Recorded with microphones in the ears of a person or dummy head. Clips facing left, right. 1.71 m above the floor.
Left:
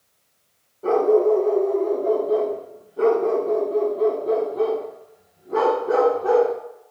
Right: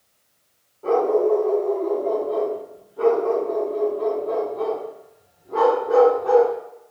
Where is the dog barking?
20° left (ahead or behind), 2.0 m.